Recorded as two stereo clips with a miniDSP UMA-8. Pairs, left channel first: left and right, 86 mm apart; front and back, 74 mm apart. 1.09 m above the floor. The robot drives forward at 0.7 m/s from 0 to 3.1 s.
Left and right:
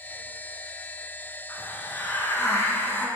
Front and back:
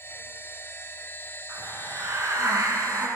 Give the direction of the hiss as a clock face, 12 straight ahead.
7 o'clock.